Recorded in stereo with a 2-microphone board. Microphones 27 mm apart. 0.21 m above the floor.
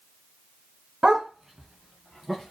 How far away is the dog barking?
About 0.7 m.